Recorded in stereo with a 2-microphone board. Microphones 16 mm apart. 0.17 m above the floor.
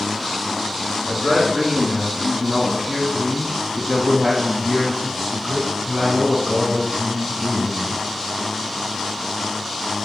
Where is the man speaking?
20° left (ahead or behind), 2.5 m; by 8.0 s 5° right (ahead or behind), 2.5 m.